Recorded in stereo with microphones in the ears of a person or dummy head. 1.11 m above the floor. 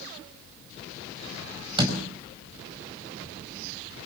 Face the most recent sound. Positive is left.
turn(degrees=-25)  # may be behind; listen again after turning